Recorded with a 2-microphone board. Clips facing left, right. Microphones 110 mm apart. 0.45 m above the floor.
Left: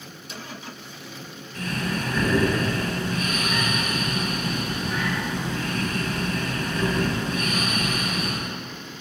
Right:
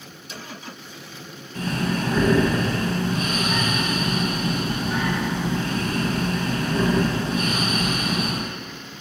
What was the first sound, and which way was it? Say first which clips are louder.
Breathing: right 4 dB; 30° right (ahead or behind).